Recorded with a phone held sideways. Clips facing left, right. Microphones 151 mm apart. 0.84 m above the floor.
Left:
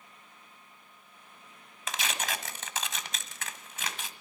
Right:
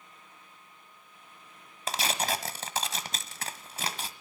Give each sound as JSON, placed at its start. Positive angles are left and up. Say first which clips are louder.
{"t": 1.9, "sound": "tearing paper", "louder": "right 4 dB", "side_deg": -35, "distance_m": 1.6}